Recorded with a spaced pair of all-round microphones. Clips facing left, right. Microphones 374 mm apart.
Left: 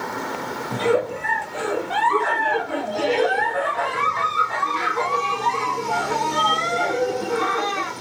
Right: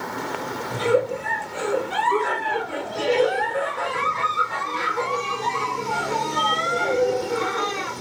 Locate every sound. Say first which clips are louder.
0.7 s a giggle: even; 70° left (ahead or behind), 0.7 m